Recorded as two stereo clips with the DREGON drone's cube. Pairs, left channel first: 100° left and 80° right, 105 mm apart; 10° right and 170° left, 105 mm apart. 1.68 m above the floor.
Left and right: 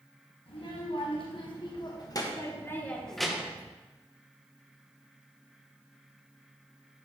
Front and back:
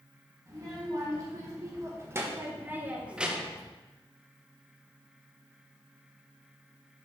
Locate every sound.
0.5 s a child speaking: 115° left, 1.6 m; by 3.7 s 100° right, 0.8 m